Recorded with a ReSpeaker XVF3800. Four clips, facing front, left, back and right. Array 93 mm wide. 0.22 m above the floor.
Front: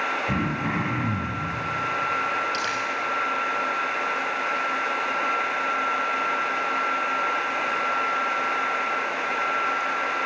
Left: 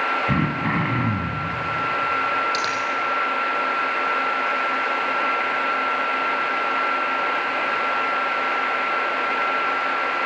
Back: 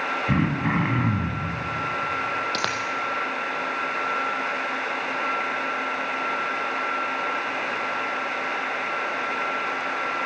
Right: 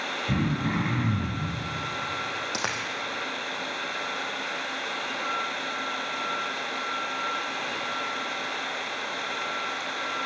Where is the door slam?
No door slam in this recording.